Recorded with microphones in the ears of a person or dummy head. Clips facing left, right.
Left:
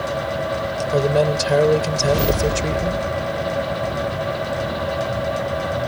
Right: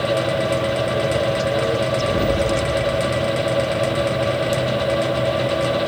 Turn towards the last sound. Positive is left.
turn(degrees=65)  # may be behind; listen again after turning